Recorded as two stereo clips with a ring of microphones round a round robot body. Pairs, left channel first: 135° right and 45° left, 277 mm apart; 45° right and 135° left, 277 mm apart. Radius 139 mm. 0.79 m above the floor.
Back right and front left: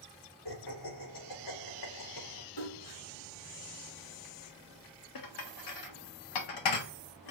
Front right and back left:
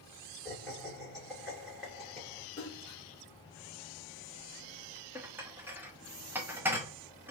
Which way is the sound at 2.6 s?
115° right.